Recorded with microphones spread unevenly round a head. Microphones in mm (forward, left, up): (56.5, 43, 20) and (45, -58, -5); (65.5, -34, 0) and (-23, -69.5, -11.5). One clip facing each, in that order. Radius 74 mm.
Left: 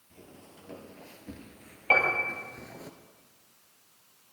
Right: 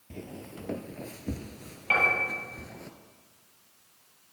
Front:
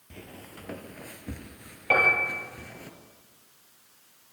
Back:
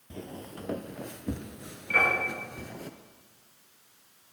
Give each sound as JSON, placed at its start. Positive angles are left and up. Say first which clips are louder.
{"t": 0.1, "sound": "footsteps", "louder": "right 10 dB, back 5 dB", "azimuth_deg": -95, "distance_m": 1.5}
{"t": 1.9, "sound": "a piano", "louder": "left 1 dB, front 3 dB", "azimuth_deg": 35, "distance_m": 8.5}